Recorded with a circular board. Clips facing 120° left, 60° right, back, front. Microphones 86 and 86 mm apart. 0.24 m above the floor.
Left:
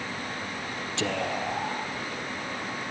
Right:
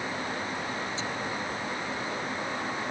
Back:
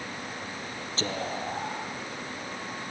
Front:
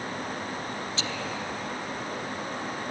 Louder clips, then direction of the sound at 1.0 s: Left 4 dB, back 1 dB; 130° left.